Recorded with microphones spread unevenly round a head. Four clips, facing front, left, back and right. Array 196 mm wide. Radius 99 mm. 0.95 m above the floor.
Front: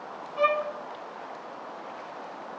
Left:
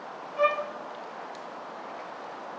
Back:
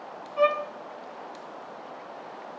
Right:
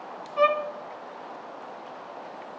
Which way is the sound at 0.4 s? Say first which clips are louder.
Right 3 dB, back 1 dB; 80° right.